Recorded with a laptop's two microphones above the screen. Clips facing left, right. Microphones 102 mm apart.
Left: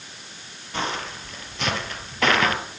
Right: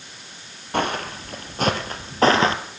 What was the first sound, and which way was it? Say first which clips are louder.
Footsteps: right 5 dB; 55° right (ahead or behind).